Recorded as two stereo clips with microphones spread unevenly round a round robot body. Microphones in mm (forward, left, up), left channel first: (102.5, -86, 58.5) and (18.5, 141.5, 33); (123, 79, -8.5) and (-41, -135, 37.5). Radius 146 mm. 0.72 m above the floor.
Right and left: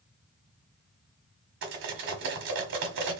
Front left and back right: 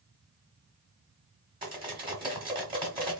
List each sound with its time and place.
1.6 s cutlery clinking: 155° left, 1.3 m